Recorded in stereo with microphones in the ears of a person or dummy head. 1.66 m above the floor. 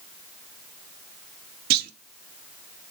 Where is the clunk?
50° right (ahead or behind), 0.6 m.